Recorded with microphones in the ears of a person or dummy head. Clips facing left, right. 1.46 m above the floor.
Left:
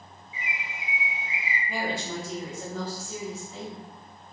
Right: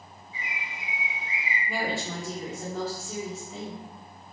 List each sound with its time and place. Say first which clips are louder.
0.3 s a bird: left 1 dB; 15° left (ahead or behind), 1.0 m
1.7 s a woman speaking: even; 65° right (ahead or behind), 1.1 m